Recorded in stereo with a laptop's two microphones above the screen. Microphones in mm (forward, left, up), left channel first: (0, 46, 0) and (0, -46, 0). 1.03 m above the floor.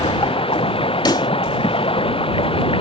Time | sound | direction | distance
0.0 | running water | 85° left | ?
1.1 | a pop | 55° left (ahead or behind) | ?